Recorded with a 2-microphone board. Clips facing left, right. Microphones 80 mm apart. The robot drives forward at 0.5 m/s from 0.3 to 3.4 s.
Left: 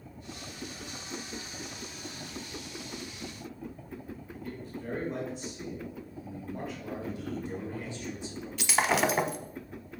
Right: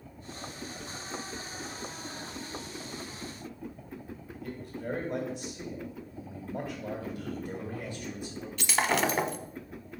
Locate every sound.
4.4 s a man speaking: 65° right (ahead or behind), 2.5 m
7.0 s a man speaking: 50° right (ahead or behind), 2.5 m
8.6 s breaking glass: centre (ahead or behind), 0.6 m